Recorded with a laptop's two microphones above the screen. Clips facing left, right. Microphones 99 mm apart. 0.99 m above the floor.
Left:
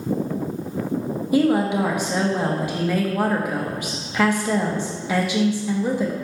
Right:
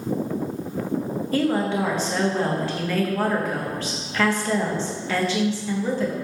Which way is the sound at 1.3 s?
15° left (ahead or behind).